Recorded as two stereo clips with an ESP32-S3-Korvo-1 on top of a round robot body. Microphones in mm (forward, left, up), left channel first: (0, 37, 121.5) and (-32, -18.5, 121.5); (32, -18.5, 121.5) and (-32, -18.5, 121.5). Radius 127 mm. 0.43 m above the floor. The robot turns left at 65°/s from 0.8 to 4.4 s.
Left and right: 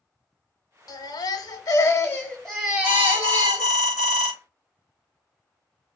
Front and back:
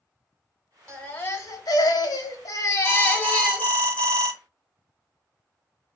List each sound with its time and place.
0.9 s a baby crying: 80° left, 0.9 m; by 3.7 s 100° right, 0.9 m
2.8 s an alarm: 50° left, 1.9 m; by 4.3 s 50° right, 1.9 m